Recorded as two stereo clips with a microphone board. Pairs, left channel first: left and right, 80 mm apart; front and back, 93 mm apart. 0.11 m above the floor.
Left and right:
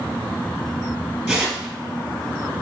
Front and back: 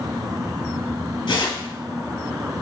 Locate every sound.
1.3 s tearing paper: 20° right, 3 m